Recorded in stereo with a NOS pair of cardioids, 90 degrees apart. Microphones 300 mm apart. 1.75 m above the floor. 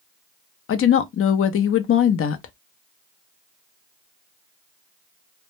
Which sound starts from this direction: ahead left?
A woman speaking, at 0.7 s.